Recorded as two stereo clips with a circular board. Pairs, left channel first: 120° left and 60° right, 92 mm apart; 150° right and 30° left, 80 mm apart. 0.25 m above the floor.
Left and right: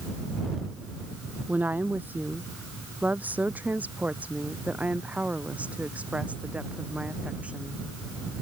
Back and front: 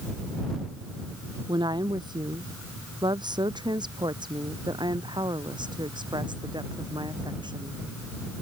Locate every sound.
1.5 s a woman speaking: 10° left; by 7.8 s 15° left